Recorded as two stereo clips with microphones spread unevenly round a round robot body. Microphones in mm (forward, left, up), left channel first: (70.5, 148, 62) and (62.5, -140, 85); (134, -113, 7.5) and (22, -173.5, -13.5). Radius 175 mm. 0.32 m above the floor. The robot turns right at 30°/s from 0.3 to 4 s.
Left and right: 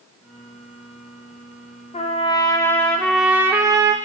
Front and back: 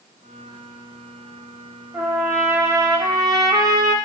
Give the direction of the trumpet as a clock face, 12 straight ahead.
7 o'clock.